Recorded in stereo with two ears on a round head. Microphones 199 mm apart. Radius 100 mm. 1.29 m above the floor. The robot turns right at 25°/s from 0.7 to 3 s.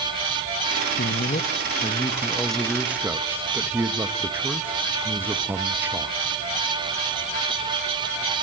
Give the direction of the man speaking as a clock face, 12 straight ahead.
7 o'clock.